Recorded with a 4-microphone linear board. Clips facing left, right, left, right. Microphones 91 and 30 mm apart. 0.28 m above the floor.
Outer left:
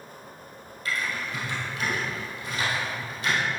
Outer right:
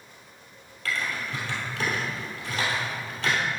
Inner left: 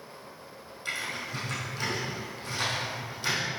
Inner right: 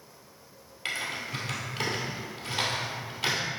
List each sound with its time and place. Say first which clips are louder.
0.8 s typing on a keyboard: even, inner right 1 dB; 70° right (ahead or behind), 2 m